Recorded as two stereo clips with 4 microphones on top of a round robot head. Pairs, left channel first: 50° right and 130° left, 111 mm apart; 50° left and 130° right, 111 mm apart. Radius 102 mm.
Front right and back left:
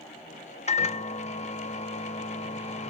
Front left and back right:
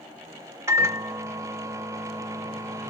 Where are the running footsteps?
No running footsteps in this recording.